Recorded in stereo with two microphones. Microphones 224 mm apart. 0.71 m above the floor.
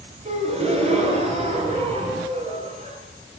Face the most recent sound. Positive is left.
turn(degrees=-30)  # may be behind; listen again after turning